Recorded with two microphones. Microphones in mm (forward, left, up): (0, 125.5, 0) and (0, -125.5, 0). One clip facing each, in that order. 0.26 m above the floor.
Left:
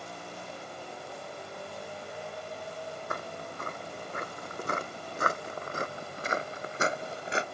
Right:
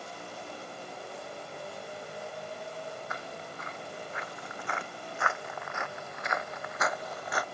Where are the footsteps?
50° left (ahead or behind); by 7.5 s 25° left (ahead or behind).